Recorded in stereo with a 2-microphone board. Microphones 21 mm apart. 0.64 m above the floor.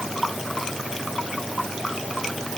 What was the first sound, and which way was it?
Only background noise.